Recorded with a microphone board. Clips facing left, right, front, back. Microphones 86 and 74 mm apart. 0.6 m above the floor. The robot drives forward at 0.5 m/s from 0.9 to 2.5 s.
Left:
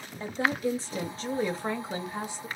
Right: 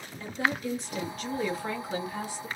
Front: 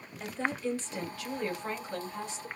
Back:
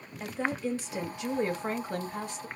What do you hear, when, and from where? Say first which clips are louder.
0.2 s a woman speaking: left 2 dB, back 1 dB; 105° left, 0.7 m; by 2.5 s 160° left, 1.1 m